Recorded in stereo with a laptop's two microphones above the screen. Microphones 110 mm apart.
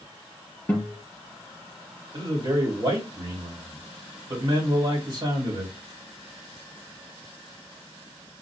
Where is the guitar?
10° left (ahead or behind), 3.5 m.